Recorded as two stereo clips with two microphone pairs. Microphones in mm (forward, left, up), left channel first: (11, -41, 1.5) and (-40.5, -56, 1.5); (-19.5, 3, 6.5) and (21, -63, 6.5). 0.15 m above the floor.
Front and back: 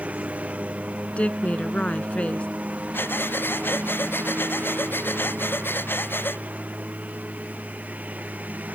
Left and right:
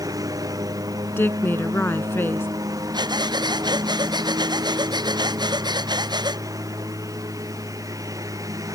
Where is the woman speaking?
75° left.